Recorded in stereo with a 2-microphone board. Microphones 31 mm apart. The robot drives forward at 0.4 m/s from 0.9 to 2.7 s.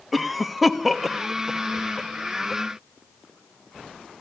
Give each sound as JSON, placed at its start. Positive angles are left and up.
{"t": 0.1, "sound": "a cough", "side_deg": -5, "distance_m": 0.8}